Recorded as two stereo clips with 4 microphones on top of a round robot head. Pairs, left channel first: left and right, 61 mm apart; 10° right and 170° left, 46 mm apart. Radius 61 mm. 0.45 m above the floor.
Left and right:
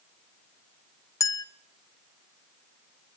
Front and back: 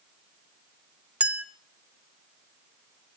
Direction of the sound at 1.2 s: 110° left.